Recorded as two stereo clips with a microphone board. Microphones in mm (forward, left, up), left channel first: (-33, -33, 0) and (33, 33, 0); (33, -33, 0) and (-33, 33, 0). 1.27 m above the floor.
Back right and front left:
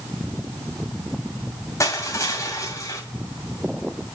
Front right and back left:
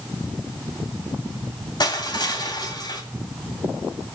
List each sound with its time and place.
1.8 s crushing: 80° right, 2.5 m